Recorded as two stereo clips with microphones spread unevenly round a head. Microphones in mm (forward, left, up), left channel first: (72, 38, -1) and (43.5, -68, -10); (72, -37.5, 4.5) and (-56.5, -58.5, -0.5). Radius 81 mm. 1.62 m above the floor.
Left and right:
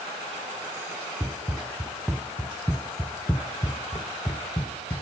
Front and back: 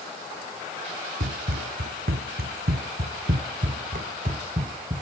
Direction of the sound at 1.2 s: 170° left.